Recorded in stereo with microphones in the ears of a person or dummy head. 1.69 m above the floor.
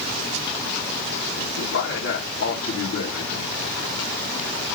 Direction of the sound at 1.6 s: 65° left (ahead or behind).